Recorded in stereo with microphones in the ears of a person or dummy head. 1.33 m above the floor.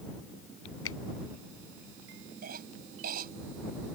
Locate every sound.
0.8 s a finger snap: 85° left
2.4 s a cough: 60° right (ahead or behind)